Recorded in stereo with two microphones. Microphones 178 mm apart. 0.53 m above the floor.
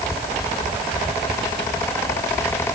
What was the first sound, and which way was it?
Only background noise.